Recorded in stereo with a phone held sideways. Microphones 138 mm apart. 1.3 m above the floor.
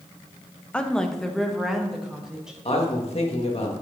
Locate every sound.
0.7 s a woman speaking: 10° left (ahead or behind), 0.8 m; by 2.5 s 5° right (ahead or behind), 1.7 m
2.6 s a man speaking: 45° left (ahead or behind), 1.8 m